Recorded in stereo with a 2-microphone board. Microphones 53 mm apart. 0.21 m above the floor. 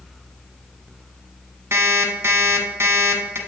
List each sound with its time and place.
1.7 s an alarm clock: 50° right (ahead or behind), 0.9 m